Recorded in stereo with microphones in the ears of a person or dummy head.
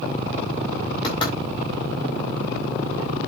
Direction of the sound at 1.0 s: 20° left (ahead or behind).